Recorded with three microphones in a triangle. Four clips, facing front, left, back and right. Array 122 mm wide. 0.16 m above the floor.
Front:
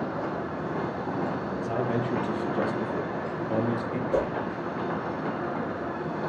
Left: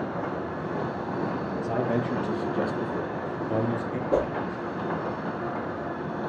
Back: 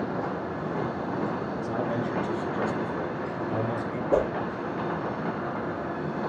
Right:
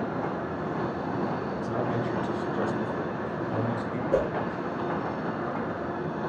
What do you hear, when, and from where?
1.6 s a man speaking: 75° left, 5 m; by 4.0 s 40° left, 3 m
4.1 s a whoosh: 155° left, 3 m